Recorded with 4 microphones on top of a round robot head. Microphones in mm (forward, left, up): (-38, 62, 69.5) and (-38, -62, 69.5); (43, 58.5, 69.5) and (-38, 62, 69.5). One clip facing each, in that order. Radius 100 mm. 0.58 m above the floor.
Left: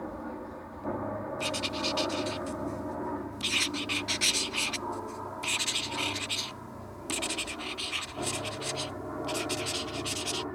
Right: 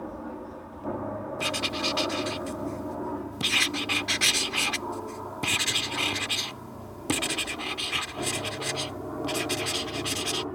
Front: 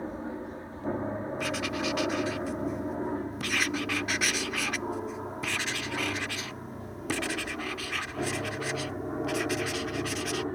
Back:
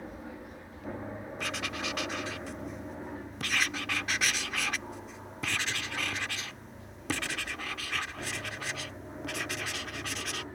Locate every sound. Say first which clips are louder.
0.0 s an aircraft: right 1 dB, front 7 dB; 15° right; by 10.6 s 20° right
1.4 s writing: right 2 dB, front 3 dB; 90° right